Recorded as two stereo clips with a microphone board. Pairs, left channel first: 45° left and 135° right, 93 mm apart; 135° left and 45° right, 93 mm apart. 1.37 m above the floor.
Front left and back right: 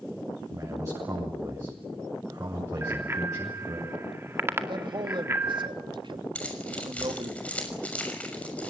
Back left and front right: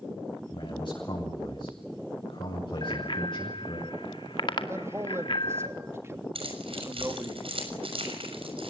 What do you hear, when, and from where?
0.5 s a man speaking: 170° left, 7.5 m
2.8 s a bicycle bell: 160° left, 2 m
4.7 s a man speaking: 105° right, 3 m
6.3 s keys jangling: 30° right, 6 m